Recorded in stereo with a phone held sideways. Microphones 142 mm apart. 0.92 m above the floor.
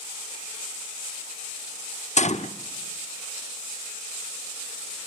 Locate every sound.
2.2 s a gunshot: 55° left (ahead or behind), 0.7 m